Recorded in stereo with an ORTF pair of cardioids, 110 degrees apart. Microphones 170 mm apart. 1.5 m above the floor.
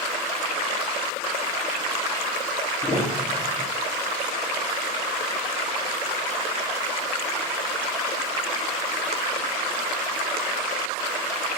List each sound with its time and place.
2.8 s a piano: 10° left, 9.5 m